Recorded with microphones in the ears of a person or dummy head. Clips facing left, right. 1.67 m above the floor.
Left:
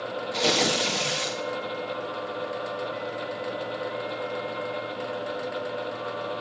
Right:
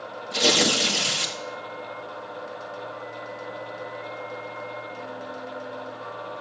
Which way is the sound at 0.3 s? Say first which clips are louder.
Right 2 dB; 10° right (ahead or behind).